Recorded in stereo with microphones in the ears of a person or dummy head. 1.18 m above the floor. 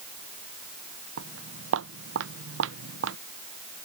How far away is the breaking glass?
No breaking glass in this recording.